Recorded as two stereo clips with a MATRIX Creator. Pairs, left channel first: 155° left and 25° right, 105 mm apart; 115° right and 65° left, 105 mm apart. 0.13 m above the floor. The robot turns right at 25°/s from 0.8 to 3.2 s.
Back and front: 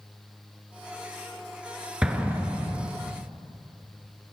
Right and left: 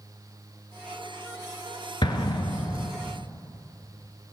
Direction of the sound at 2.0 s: 100° right.